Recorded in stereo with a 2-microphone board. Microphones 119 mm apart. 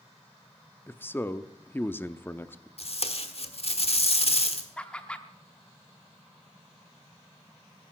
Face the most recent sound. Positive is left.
turn(degrees=10)  # may be behind; listen again after turning